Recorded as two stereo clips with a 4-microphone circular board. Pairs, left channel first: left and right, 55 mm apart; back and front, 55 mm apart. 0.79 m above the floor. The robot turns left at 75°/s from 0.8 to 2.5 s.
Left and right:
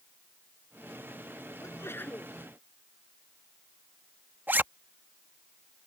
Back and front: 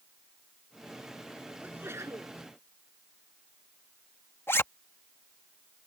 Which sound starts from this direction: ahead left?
A sneeze, at 1.6 s.